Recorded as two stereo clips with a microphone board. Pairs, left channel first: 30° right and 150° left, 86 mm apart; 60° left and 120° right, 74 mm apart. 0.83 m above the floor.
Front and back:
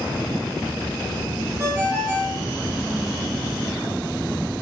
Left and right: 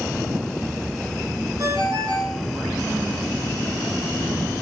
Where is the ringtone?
155° right, 5 m.